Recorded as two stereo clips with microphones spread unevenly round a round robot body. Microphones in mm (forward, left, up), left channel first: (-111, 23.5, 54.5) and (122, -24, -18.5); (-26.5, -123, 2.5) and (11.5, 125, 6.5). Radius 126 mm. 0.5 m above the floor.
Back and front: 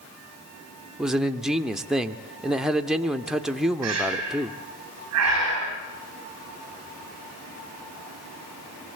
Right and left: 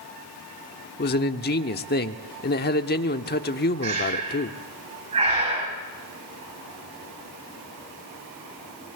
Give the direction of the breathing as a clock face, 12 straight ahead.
12 o'clock.